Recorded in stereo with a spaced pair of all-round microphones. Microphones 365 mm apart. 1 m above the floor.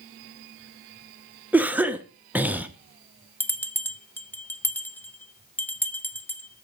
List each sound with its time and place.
1.5 s a cough: 5° right (ahead or behind), 0.7 m
3.4 s a bell: 5° left (ahead or behind), 0.5 m